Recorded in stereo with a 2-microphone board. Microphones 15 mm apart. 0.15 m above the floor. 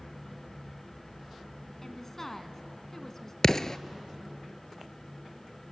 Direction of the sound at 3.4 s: 30° left (ahead or behind).